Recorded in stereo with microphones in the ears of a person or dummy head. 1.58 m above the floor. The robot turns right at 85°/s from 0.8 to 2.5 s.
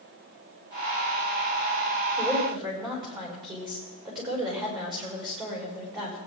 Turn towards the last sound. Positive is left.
turn(degrees=-20)  # may be behind; listen again after turning